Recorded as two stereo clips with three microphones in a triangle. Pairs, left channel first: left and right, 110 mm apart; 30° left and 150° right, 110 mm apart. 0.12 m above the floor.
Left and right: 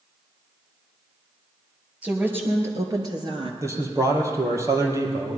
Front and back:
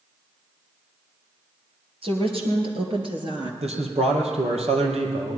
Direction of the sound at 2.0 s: 165° right.